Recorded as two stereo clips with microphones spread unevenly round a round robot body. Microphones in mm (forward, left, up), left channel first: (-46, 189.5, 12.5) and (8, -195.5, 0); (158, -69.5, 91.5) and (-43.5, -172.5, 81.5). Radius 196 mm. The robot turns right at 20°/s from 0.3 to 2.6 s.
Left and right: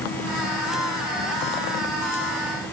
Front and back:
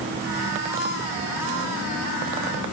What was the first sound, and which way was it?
Only background noise.